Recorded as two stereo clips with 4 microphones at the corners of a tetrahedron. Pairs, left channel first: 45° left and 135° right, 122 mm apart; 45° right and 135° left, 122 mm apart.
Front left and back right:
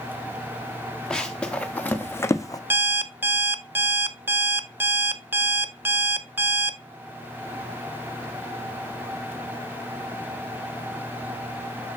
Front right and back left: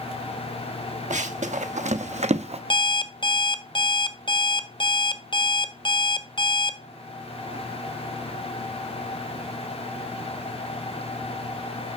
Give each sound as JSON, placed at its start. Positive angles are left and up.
{"t": 1.1, "sound": "running footsteps", "azimuth_deg": 130, "distance_m": 1.4}
{"t": 2.7, "sound": "an alarm clock", "azimuth_deg": -70, "distance_m": 0.6}